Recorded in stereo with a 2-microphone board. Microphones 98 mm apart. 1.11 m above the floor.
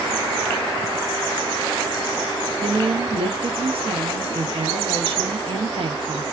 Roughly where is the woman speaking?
Right.